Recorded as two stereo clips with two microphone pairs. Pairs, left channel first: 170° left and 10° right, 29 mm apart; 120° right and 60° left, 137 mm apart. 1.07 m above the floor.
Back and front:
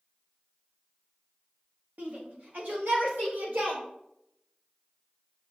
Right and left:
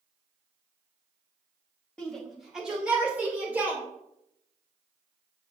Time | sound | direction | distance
2.0 | a shout | 40° right | 1.6 m